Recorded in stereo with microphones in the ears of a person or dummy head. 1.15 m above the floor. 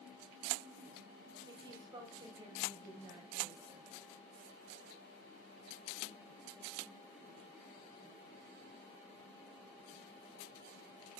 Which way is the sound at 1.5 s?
25° right (ahead or behind).